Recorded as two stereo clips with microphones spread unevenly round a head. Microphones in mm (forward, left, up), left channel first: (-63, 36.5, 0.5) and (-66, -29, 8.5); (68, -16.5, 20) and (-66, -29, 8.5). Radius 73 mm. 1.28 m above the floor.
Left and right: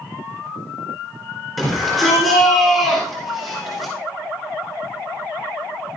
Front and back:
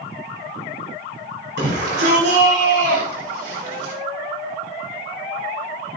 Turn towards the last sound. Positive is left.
turn(degrees=180)